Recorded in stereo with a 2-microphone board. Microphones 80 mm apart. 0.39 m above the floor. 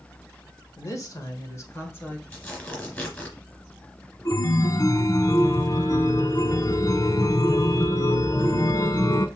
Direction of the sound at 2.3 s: 25° left (ahead or behind).